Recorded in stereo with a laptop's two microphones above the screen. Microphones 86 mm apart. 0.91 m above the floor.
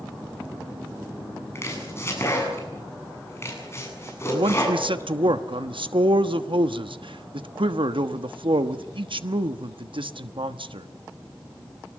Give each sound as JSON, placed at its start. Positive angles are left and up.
{"t": 1.6, "sound": "chopping", "side_deg": 30, "distance_m": 8.0}
{"t": 4.3, "sound": "a man speaking", "side_deg": -70, "distance_m": 1.2}